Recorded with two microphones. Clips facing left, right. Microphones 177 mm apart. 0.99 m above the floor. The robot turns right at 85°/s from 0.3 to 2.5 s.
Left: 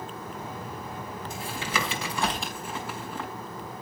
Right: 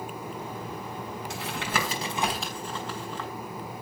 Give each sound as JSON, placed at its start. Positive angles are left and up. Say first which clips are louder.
{"t": 1.3, "sound": "tapping", "louder": "right 1 dB", "side_deg": -85, "distance_m": 5.5}